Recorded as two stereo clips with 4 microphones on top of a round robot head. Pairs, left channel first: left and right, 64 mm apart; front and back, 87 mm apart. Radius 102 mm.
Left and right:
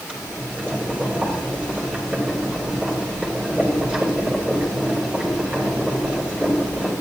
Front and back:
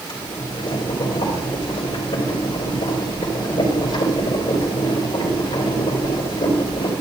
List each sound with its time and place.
0.1 s boiling: 20° right, 3 m